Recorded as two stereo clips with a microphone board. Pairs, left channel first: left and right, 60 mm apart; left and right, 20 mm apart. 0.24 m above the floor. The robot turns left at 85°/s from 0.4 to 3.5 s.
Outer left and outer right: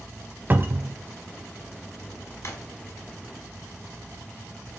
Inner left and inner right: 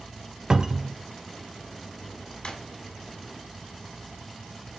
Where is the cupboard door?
45° right, 0.5 m; by 1.0 s 85° right, 0.5 m.